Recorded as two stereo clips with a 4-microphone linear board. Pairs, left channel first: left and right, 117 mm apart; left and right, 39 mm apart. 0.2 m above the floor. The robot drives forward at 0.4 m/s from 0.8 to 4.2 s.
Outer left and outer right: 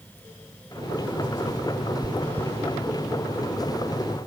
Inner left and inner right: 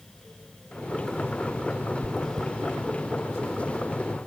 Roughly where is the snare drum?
No snare drum in this recording.